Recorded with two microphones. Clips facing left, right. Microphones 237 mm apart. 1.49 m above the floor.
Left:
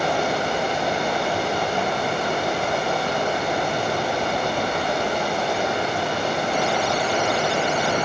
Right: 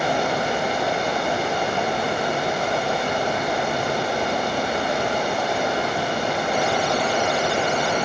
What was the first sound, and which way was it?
Running water, 10° right (ahead or behind).